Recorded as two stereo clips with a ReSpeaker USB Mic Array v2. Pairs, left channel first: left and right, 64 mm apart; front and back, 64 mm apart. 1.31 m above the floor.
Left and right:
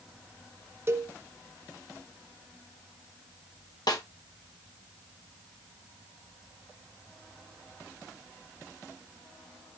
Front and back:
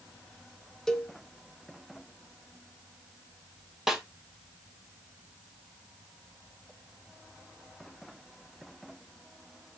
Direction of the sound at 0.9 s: 75° right.